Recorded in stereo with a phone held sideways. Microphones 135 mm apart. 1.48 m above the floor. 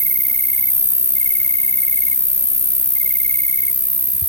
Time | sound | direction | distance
0.0 | an insect | 55° right (ahead or behind) | ?